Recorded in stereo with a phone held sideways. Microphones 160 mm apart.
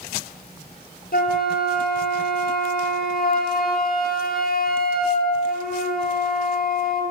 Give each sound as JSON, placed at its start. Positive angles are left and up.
{"t": 1.1, "sound": "a flute", "side_deg": 65, "distance_m": 3.5}